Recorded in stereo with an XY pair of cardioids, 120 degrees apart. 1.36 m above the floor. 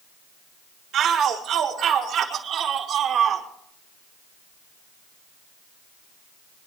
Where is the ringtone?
No ringtone in this recording.